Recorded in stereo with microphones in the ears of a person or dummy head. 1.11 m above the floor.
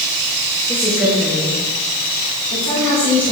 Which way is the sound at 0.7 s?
15° right (ahead or behind).